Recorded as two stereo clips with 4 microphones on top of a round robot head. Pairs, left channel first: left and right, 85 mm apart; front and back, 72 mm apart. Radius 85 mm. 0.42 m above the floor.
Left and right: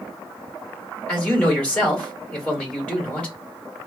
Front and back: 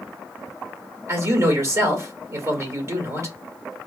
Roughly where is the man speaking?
Behind.